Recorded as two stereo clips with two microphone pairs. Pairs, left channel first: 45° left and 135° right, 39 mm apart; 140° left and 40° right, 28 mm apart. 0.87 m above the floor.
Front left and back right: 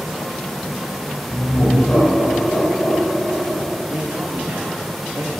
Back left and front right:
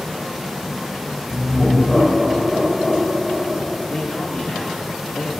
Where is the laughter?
55° left, 3.5 m; by 3.7 s 75° left, 5.5 m.